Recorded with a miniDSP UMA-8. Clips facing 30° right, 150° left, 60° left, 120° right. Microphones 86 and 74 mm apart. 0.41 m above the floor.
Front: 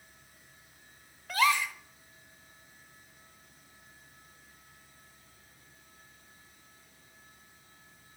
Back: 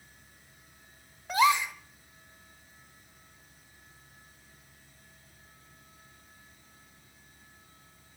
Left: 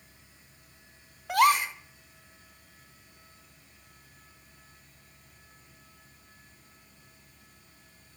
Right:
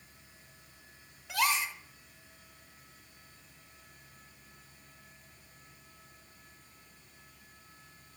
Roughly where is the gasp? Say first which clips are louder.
Back 3 dB, left 9 dB; left.